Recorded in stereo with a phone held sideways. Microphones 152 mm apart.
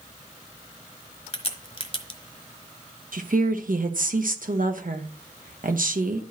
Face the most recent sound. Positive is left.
turn(degrees=-70)  # may be behind; listen again after turning